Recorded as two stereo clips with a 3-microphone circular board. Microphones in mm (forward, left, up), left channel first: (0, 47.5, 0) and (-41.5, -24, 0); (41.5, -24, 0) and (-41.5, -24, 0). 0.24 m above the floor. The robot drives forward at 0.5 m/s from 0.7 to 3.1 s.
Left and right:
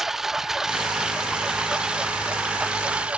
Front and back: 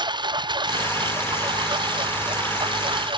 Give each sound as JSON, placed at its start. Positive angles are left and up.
{"t": 0.0, "sound": "a lawn mower", "azimuth_deg": 155}